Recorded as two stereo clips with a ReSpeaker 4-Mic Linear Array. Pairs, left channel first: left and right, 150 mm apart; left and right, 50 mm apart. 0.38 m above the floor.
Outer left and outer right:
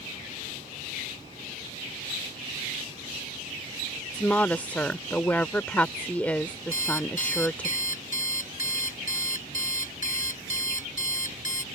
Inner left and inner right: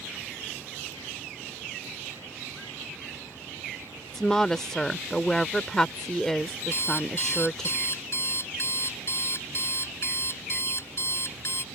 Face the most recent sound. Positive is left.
turn(degrees=60)  # may be behind; listen again after turning